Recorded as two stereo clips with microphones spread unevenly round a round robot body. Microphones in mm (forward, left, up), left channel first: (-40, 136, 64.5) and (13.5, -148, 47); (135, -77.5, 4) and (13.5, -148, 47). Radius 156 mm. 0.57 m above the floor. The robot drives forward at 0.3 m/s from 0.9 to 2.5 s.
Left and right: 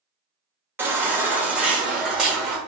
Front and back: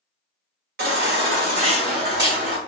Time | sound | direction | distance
0.8 | a baby crying | 160° right | 0.9 m